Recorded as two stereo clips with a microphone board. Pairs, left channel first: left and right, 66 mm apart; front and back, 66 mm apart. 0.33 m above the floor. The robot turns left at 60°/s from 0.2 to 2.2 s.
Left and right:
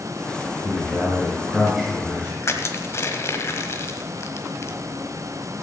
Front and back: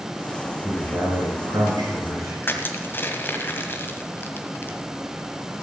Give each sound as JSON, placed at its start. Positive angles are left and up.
{"t": 0.6, "sound": "a man speaking", "azimuth_deg": -105, "distance_m": 4.5}
{"t": 2.4, "sound": "crushing", "azimuth_deg": 50, "distance_m": 1.3}